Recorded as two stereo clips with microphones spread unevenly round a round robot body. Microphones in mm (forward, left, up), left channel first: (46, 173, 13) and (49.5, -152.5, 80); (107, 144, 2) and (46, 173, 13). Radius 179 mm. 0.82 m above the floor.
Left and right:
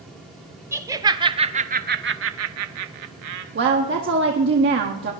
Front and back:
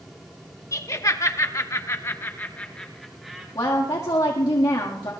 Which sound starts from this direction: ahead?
Laughter, at 0.7 s.